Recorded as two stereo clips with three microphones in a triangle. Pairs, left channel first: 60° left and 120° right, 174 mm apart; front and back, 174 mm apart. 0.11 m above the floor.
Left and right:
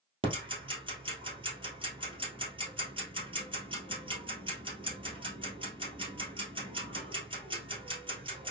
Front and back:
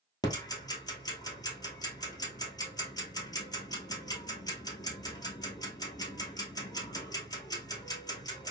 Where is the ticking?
65° right, 1.5 m.